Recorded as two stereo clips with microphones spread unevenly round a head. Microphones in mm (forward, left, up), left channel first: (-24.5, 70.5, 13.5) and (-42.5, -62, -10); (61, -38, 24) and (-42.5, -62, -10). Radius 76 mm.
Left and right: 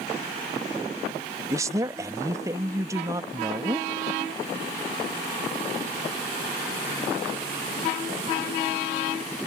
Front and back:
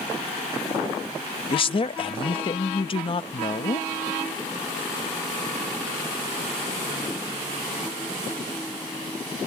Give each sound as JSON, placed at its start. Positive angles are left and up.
{"t": 1.5, "sound": "a man speaking", "azimuth_deg": -30}